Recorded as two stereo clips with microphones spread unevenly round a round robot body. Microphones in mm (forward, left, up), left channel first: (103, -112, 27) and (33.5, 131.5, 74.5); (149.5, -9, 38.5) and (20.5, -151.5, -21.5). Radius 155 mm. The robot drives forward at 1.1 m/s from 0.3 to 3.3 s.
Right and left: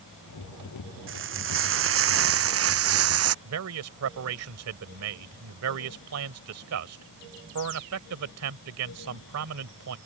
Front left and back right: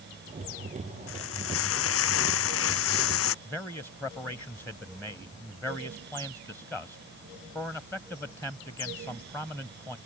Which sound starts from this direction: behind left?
A man speaking, at 3.5 s.